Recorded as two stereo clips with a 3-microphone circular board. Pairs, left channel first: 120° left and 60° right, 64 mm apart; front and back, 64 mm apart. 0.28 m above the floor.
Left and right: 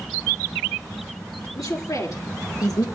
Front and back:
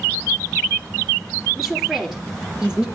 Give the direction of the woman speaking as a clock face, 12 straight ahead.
9 o'clock.